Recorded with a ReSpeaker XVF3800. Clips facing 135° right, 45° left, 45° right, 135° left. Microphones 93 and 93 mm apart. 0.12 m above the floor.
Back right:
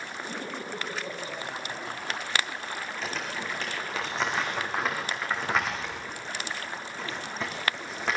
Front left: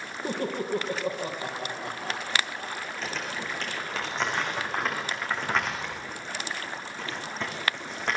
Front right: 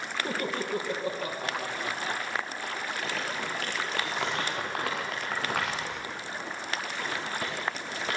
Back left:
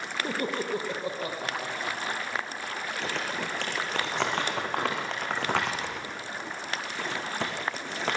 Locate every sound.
0.2 s laughter: 70° left, 4.5 m; by 2.9 s 65° left, 6 m
3.0 s crumpling: 135° left, 5 m